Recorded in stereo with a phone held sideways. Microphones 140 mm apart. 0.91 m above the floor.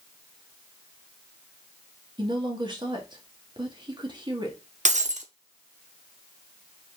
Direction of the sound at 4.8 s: 60° right (ahead or behind).